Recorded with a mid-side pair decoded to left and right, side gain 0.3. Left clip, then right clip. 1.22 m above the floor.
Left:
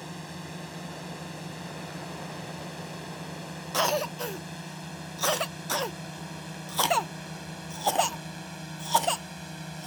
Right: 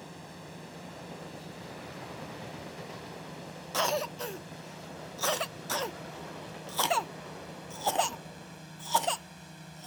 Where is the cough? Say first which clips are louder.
Left 3 dB; 25° left.